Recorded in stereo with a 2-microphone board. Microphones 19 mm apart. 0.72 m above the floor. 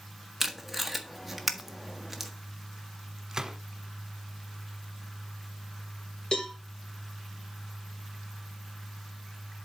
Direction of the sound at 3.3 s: 35° right (ahead or behind).